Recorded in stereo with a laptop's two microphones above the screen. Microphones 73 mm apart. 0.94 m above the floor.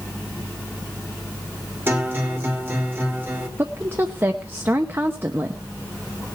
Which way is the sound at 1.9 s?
30° right (ahead or behind).